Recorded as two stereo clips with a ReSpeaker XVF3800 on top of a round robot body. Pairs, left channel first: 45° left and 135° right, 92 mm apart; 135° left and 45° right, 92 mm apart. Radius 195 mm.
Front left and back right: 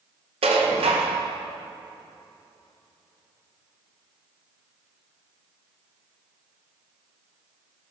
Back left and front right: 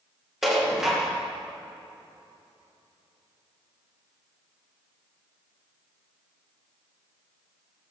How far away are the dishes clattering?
About 1.7 m.